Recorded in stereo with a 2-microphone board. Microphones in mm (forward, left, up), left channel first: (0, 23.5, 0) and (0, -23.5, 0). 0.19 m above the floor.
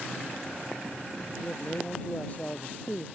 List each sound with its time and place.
1.4 s a man speaking: 35° left (ahead or behind)